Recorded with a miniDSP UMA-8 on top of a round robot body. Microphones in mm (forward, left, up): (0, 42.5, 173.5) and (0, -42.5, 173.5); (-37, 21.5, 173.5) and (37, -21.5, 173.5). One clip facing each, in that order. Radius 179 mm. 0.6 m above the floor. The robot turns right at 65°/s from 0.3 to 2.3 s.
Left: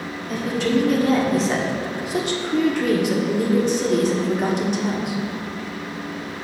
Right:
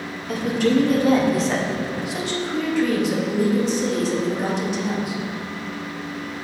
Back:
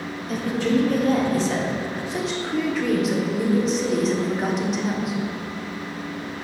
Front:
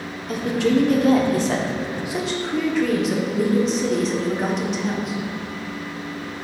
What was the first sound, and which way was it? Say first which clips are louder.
A woman speaking: right 2 dB, front 3 dB; 70° right.